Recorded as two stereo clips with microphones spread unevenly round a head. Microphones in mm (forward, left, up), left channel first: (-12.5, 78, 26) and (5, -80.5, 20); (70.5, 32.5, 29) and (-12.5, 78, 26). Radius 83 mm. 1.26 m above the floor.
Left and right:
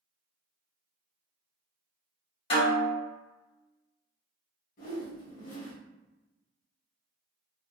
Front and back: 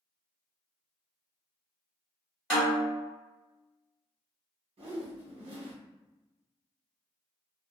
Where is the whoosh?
140° left, 1.0 m.